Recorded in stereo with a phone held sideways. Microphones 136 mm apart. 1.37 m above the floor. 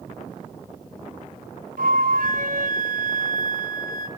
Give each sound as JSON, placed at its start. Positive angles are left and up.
{"t": 1.8, "sound": "a flute", "side_deg": -75, "distance_m": 3.5}